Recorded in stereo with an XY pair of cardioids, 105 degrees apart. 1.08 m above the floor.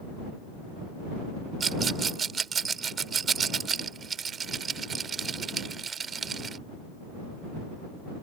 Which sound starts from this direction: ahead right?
A rattle, at 1.6 s.